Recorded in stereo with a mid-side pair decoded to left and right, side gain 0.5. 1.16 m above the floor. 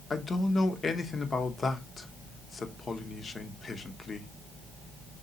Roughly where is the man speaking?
Ahead left.